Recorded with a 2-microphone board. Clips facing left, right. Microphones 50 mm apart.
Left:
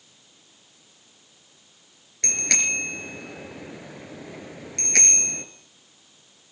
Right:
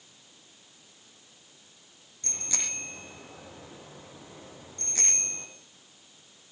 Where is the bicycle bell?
75° left (ahead or behind), 4 m.